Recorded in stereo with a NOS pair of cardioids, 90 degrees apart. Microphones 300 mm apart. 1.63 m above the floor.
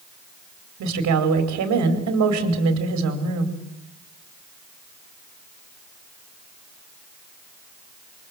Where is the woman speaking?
70° right, 4.5 m.